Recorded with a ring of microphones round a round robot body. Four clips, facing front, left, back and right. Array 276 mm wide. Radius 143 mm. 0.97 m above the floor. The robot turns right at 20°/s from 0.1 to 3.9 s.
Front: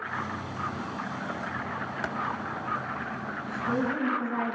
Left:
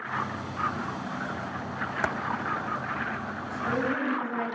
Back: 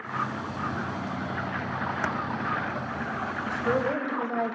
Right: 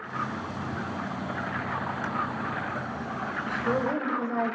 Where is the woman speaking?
155° right, 5.5 m; by 4.5 s 150° right, 5.5 m.